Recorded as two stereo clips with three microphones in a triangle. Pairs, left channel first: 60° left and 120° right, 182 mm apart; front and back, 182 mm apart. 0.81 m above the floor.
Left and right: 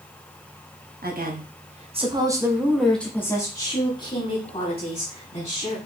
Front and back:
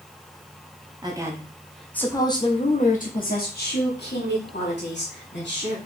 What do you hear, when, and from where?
1.0 s a woman speaking: 120° right, 1.0 m; by 5.8 s 5° left, 2.5 m